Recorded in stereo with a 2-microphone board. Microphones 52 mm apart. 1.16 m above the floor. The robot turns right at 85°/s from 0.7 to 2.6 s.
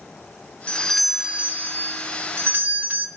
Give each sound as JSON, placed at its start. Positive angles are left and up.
{"t": 0.7, "sound": "a doorbell", "azimuth_deg": 150, "distance_m": 0.8}